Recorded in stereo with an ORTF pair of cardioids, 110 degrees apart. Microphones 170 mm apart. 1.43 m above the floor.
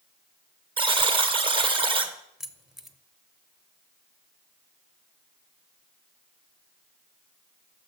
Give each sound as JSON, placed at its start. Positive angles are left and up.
{"t": 0.8, "sound": "a buzzer", "azimuth_deg": -30, "distance_m": 1.4}
{"t": 2.4, "sound": "keys jangling", "azimuth_deg": 0, "distance_m": 0.9}